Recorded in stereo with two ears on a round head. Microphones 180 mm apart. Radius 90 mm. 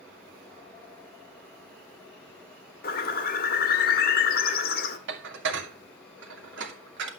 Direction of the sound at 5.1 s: 60° right (ahead or behind).